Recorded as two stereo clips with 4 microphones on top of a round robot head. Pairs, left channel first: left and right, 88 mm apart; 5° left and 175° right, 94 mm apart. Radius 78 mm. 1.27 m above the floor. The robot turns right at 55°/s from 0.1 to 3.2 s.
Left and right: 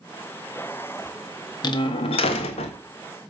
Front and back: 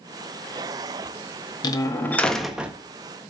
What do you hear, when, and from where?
1.6 s a door slam: 50° left, 1.3 m; by 2.8 s 115° left, 1.3 m